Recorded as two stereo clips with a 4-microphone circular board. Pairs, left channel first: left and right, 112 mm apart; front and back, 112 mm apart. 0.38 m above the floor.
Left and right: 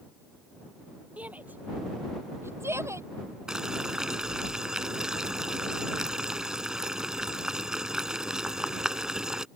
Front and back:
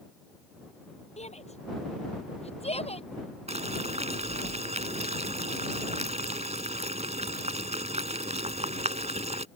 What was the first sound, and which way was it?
A shout, 10° right.